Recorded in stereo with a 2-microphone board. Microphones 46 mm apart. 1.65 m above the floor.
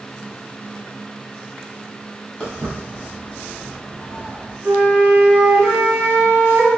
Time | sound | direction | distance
2.4 | footsteps | 15° left (ahead or behind) | 1.7 m
4.6 | a flute | 40° right (ahead or behind) | 0.9 m